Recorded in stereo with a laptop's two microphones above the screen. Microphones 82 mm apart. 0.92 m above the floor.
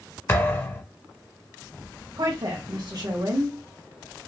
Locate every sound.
0.3 s a thud: 30° left (ahead or behind), 0.8 m
2.2 s a woman speaking: 60° right (ahead or behind), 1.2 m